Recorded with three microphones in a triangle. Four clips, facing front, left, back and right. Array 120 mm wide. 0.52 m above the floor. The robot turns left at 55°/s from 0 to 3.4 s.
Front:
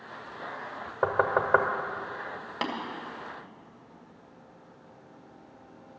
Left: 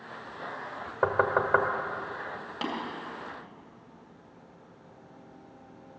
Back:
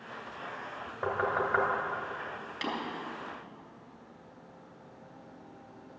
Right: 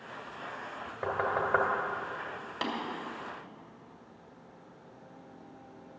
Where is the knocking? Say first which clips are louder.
Left 5 dB, front 5 dB; 50° left, 1.2 m; by 1.7 s 15° left, 1.2 m.